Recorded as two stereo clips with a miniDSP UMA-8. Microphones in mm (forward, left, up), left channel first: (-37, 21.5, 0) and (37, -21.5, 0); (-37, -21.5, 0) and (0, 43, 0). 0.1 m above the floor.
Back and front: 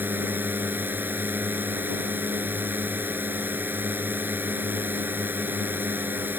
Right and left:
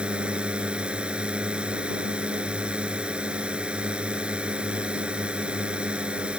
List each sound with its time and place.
0.0 s a drone: 5° left